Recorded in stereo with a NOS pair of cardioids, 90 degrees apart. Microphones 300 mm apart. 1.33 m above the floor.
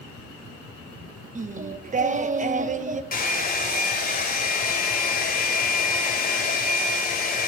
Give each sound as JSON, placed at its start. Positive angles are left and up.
{"t": 1.4, "sound": "singing", "azimuth_deg": -25, "distance_m": 1.1}
{"t": 3.1, "sound": "a hair dryer", "azimuth_deg": 30, "distance_m": 4.0}